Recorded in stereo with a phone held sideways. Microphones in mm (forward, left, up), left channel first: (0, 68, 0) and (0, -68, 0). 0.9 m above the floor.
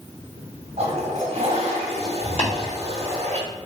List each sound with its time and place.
0.8 s a toilet flushing: 50° right (ahead or behind), 1.4 m
2.4 s tapping: 50° left (ahead or behind), 1.8 m